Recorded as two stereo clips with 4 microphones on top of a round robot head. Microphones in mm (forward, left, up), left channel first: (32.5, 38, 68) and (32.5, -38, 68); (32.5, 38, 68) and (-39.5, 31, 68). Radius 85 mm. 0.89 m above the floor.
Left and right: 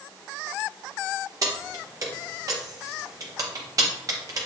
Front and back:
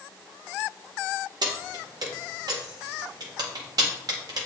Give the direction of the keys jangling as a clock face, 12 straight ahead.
5 o'clock.